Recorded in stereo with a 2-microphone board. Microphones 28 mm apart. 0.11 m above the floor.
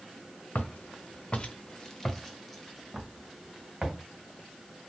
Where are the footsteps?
85° left, 0.7 m; by 4.0 s 15° right (ahead or behind), 1.8 m.